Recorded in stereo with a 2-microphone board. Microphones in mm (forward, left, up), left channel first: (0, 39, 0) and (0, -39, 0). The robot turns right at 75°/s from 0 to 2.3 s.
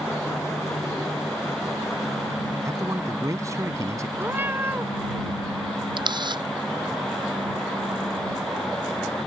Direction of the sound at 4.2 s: 30° right (ahead or behind).